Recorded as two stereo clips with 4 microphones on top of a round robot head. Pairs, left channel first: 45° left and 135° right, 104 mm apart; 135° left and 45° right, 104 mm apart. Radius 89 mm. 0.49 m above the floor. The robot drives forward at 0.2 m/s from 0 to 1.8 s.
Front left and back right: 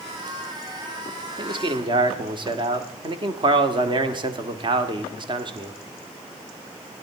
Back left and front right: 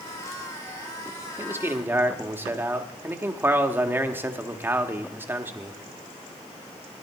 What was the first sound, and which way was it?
A man speaking, 105° right.